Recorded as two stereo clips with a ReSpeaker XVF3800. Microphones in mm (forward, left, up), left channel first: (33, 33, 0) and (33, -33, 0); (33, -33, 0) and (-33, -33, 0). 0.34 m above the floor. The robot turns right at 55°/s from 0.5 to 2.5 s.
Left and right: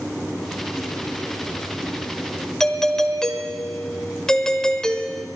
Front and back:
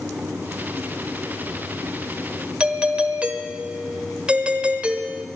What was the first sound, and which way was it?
A doorbell, 155° left.